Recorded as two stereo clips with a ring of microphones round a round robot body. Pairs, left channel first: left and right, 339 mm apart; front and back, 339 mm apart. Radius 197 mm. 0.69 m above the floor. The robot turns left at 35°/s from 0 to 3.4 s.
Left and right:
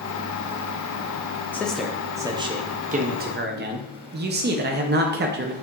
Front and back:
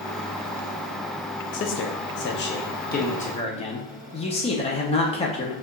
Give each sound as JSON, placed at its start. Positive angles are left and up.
{"t": 1.5, "sound": "a man speaking", "azimuth_deg": 10, "distance_m": 0.5}